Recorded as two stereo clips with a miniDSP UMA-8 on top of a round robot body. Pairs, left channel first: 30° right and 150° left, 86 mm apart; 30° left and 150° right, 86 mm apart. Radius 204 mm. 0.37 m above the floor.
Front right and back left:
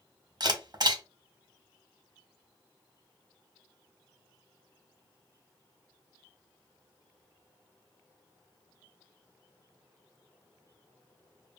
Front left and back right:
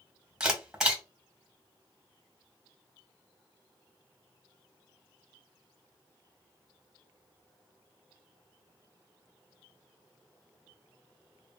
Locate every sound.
0.4 s a camera shutter: 125° left, 1.8 m